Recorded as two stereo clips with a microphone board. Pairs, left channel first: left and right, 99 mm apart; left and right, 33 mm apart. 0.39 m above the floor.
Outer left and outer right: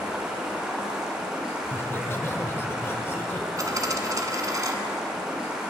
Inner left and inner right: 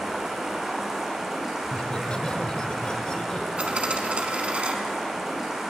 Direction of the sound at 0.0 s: 10° right (ahead or behind).